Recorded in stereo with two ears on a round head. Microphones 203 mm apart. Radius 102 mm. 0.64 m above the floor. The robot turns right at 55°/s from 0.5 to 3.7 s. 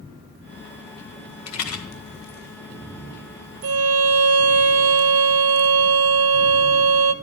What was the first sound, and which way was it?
A rattle, 85° left.